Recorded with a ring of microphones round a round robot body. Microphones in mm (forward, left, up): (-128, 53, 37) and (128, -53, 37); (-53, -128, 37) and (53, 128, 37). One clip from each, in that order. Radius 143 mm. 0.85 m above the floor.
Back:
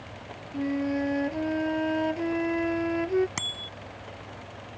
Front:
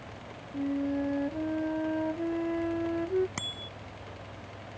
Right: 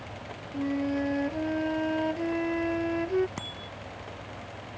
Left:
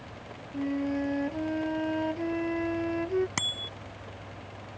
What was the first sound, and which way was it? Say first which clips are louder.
A flute: back 3 dB, right 1 dB; 165° left.